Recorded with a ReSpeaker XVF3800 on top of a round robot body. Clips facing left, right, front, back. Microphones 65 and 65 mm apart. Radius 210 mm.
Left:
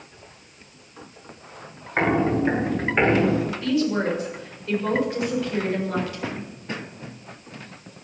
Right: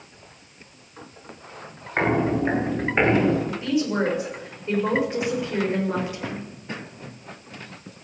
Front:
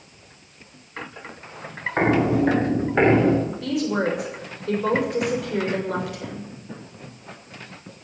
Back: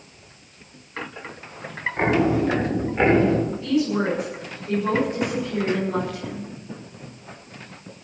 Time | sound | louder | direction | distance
2.0 | footsteps | left 1 dB, front 1 dB | 5° right | 8 m
3.4 | a woman speaking | left 1 dB, back 3 dB | 20° right | 6.5 m